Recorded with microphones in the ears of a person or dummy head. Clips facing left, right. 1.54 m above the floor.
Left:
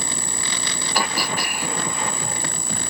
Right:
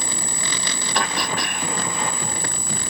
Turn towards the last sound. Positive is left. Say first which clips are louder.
# even
turn(degrees=5)  # may be behind; listen again after turning